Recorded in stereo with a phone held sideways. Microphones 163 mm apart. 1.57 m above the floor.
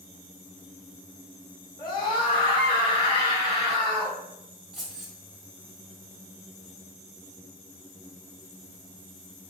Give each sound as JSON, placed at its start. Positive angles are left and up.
{"t": 1.8, "sound": "a scream", "side_deg": 25, "distance_m": 0.8}
{"t": 4.7, "sound": "keys jangling", "side_deg": -5, "distance_m": 0.8}